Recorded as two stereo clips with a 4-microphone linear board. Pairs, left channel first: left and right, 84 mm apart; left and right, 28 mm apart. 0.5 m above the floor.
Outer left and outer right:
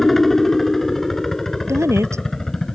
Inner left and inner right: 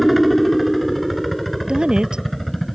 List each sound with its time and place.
0.0 s a helicopter: centre (ahead or behind); by 2.8 s 5° left (ahead or behind)
1.7 s a woman speaking: 35° right (ahead or behind)